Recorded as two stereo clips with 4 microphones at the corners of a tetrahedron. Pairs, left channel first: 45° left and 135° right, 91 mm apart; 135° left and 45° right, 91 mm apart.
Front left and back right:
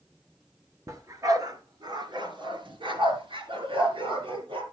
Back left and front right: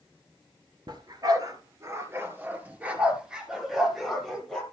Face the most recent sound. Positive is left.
turn(degrees=-140)